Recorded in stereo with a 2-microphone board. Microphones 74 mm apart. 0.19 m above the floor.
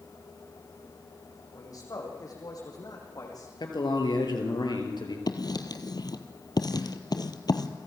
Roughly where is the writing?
Left.